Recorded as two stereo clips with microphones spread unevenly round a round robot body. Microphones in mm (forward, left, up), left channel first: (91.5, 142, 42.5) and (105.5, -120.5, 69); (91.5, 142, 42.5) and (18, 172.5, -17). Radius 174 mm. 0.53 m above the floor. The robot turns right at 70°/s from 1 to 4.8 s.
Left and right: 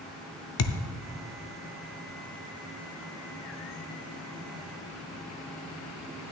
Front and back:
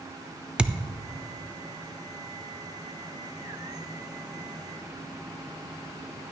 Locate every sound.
0.6 s a thud: 100° left, 0.7 m